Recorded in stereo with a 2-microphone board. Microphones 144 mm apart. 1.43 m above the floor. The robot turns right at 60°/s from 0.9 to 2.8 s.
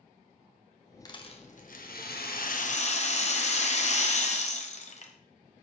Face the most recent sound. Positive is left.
turn(degrees=130)